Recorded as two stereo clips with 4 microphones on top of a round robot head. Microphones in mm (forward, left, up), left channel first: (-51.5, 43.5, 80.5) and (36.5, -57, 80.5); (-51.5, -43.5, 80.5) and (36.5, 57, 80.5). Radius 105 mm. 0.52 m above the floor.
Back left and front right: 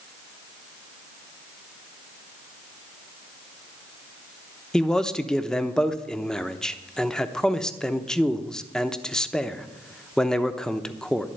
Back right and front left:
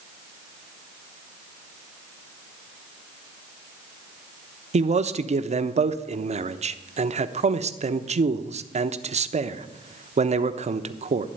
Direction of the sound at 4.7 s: 45° left.